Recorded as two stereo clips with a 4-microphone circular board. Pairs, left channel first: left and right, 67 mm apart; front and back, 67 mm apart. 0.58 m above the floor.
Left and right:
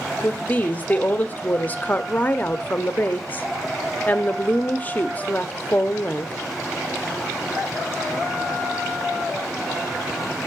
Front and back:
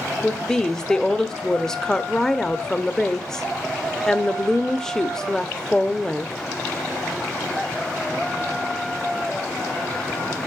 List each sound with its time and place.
0.2 s a woman speaking: 70° left, 0.6 m